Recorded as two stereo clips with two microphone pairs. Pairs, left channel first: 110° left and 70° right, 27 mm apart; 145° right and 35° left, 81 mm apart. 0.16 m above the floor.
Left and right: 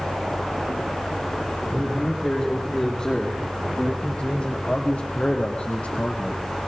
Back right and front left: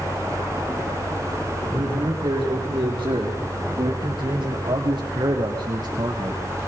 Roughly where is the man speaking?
Ahead left.